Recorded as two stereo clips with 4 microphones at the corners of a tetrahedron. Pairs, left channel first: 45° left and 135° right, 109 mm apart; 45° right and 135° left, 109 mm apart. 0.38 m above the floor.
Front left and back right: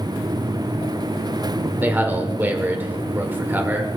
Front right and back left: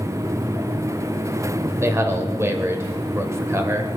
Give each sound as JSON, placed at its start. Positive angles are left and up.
{"t": 1.8, "sound": "a man speaking", "azimuth_deg": 170, "distance_m": 1.4}